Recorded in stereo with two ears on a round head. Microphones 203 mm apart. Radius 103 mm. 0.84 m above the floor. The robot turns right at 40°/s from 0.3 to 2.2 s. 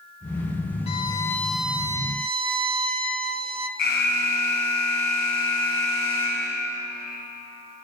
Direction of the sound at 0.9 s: 150° left.